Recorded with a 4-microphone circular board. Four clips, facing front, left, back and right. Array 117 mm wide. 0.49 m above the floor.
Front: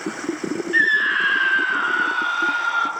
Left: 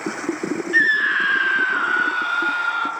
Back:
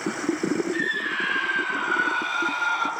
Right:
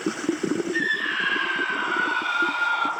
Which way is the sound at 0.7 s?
50° left.